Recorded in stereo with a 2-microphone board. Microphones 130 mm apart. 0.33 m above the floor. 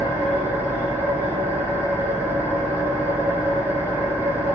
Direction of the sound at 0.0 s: 15° right (ahead or behind).